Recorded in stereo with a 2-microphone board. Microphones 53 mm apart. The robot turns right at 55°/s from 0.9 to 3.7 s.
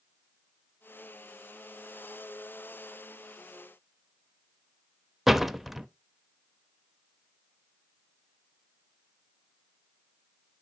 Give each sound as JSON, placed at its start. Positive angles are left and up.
{"t": 5.3, "sound": "a door slam", "side_deg": -5, "distance_m": 0.5}